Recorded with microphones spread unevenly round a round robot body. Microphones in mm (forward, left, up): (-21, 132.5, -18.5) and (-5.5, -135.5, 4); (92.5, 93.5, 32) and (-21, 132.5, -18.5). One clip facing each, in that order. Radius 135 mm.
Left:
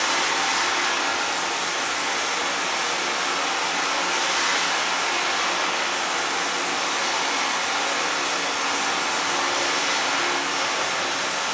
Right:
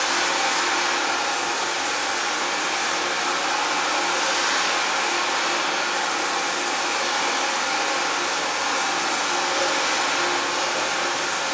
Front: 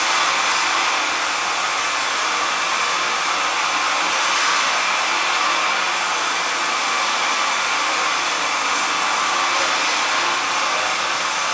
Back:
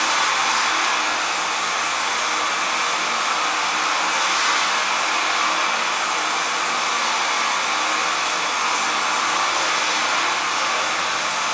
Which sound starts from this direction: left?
Running water, at 0.0 s.